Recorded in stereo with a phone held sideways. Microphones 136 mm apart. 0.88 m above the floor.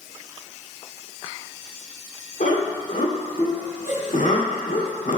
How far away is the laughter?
About 2 m.